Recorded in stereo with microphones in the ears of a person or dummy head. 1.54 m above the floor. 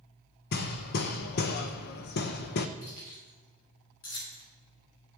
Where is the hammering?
55° left (ahead or behind), 0.7 m.